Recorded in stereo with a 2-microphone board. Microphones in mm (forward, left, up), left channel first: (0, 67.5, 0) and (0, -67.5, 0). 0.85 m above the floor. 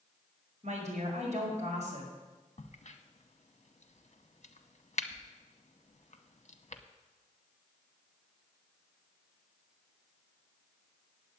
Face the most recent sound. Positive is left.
turn(degrees=55)  # may be behind; listen again after turning